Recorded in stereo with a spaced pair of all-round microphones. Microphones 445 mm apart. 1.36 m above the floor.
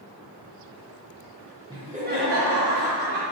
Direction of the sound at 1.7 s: 10° right (ahead or behind).